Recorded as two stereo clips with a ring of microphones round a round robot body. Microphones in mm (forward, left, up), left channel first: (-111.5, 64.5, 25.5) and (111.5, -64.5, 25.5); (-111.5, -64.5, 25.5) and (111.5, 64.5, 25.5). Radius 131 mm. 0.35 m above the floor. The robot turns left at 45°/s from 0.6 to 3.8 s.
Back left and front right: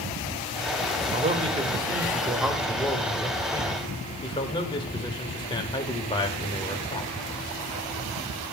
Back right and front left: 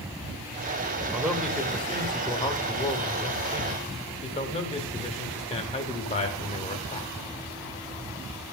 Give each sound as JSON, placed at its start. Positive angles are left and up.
{"t": 1.1, "sound": "a man speaking", "azimuth_deg": -45, "distance_m": 1.0}